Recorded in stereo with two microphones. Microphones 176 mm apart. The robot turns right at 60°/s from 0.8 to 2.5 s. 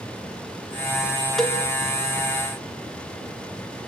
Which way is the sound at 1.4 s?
Centre (ahead or behind).